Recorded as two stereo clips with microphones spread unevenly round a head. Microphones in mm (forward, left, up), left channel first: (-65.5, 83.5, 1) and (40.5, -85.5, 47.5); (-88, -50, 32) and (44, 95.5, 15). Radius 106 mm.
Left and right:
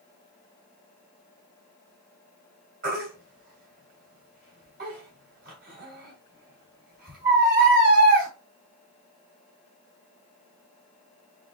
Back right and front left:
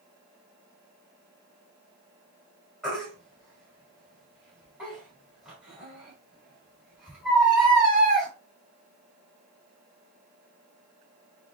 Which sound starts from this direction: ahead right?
A baby crying, at 2.8 s.